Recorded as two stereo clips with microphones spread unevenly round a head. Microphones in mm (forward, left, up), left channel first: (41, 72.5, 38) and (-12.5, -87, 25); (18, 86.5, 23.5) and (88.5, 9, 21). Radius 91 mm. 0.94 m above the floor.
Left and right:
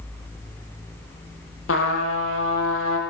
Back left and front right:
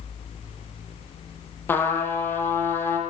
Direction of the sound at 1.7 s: 65° left.